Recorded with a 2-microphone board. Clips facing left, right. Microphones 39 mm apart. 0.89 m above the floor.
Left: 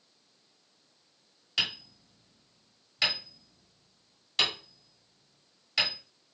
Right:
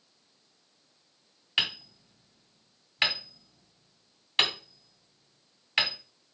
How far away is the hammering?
About 1.7 m.